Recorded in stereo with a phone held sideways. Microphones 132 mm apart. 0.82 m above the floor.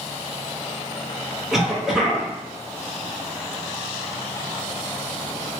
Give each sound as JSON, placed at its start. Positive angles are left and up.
{"t": 1.5, "sound": "a cough", "side_deg": -5, "distance_m": 0.8}